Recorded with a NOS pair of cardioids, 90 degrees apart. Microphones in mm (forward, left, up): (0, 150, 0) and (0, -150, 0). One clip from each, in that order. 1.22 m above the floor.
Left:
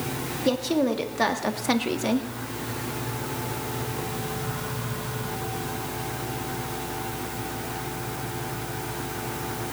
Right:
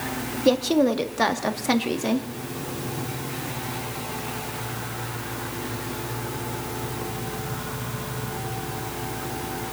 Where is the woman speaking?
25° right, 1.8 m; by 2.3 s 5° left, 1.9 m.